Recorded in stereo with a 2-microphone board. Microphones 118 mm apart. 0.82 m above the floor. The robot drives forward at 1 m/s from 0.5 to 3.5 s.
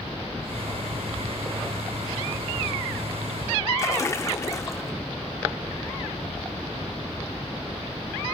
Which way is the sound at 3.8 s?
25° left (ahead or behind).